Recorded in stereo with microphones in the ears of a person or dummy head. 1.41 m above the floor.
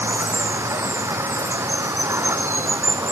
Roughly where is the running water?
Centre.